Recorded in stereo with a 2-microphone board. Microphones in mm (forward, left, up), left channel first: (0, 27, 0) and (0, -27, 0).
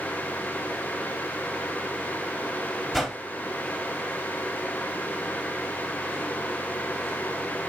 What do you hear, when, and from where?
2.9 s a whoosh: centre (ahead or behind), 3 m